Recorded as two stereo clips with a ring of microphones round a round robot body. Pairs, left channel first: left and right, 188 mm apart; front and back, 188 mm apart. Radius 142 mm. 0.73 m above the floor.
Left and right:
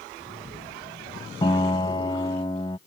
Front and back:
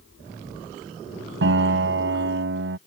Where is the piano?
165° left.